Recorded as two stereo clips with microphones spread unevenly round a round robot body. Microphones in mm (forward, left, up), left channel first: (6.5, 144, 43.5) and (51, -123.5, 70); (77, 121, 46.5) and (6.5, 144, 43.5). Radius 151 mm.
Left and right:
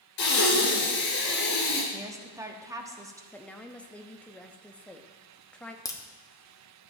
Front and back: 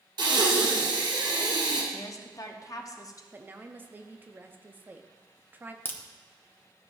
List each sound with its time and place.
0.2 s breathing: 155° left, 2 m
1.9 s a woman speaking: straight ahead, 0.9 m
3.3 s a woman speaking: 165° left, 0.6 m
5.8 s a crack: 35° left, 1.0 m